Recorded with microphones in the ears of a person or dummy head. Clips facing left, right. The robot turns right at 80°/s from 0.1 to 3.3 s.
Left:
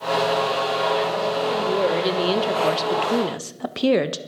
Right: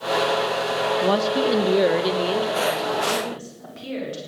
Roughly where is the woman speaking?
Right.